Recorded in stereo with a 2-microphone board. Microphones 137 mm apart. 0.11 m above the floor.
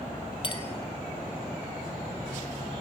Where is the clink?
35° left (ahead or behind), 1.8 m.